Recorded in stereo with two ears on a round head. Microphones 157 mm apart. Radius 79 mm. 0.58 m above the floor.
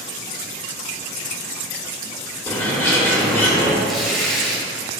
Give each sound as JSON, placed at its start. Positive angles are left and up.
{"t": 2.5, "sound": "a bird", "side_deg": 10, "distance_m": 1.5}
{"t": 3.8, "sound": "tearing paper", "side_deg": 0, "distance_m": 2.5}